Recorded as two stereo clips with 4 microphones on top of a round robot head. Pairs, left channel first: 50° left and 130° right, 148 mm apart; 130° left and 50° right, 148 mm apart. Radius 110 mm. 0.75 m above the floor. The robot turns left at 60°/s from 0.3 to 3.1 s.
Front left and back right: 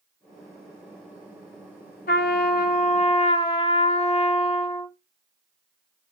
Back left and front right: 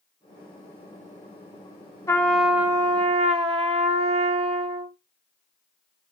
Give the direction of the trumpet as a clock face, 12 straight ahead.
10 o'clock.